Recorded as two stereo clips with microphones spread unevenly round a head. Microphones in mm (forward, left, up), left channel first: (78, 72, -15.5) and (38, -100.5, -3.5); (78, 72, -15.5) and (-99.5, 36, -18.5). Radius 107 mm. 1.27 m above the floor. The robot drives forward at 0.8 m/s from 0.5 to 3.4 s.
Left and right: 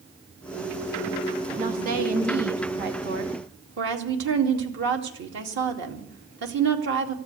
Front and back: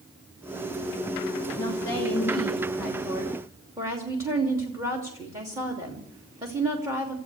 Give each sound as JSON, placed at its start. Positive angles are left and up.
{"t": 1.6, "sound": "a woman speaking", "azimuth_deg": -60, "distance_m": 3.0}